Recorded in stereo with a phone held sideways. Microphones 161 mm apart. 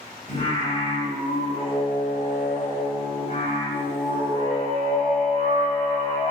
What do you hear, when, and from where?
0.3 s singing: 50° left (ahead or behind), 2 m